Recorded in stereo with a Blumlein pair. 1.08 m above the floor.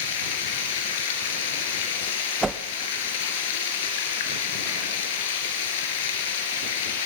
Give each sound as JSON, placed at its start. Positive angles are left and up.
{"t": 0.0, "sound": "running water", "azimuth_deg": 55, "distance_m": 3.5}
{"t": 2.4, "sound": "a whoosh", "azimuth_deg": -10, "distance_m": 1.0}